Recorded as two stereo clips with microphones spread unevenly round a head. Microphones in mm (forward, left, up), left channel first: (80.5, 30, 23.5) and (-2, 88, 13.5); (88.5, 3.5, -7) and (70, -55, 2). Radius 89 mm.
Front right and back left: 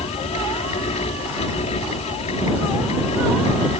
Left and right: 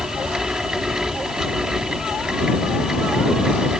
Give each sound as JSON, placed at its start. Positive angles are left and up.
{"t": 0.0, "sound": "a fan", "azimuth_deg": -30}